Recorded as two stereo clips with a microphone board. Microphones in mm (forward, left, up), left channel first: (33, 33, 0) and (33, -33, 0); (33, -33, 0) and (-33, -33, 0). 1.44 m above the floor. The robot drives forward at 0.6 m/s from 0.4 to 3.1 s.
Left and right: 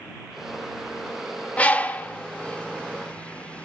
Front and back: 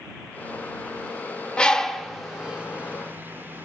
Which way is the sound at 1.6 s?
55° left.